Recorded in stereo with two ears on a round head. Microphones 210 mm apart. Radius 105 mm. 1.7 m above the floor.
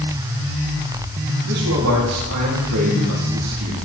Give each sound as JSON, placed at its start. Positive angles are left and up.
{"t": 1.4, "sound": "a man speaking", "side_deg": -80, "distance_m": 4.0}